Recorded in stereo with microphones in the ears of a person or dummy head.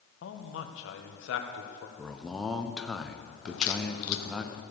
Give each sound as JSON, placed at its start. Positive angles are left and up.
{"t": 0.2, "sound": "a man speaking", "side_deg": 75, "distance_m": 1.5}
{"t": 2.0, "sound": "a man speaking", "side_deg": 5, "distance_m": 1.0}
{"t": 3.5, "sound": "a crack", "side_deg": 85, "distance_m": 0.8}